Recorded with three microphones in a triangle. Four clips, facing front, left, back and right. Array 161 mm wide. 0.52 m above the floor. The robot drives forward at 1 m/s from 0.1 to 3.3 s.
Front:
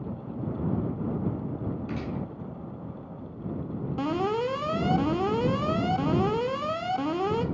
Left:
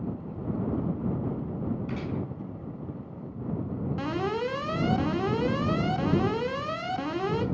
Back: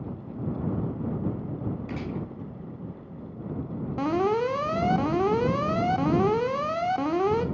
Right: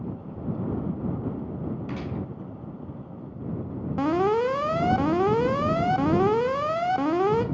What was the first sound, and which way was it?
A gunshot, 100° right.